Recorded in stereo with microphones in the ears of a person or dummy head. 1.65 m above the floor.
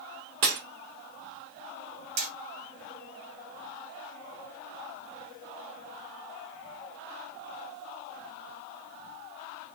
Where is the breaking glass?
60° right (ahead or behind), 1.5 m.